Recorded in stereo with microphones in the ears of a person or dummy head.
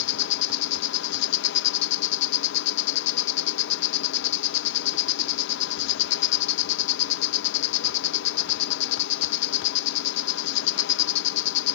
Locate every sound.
0.0 s an insect: 65° left (ahead or behind)